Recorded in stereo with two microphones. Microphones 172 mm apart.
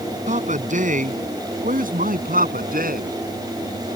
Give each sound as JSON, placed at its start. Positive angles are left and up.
{"t": 0.3, "sound": "a man speaking", "side_deg": -45}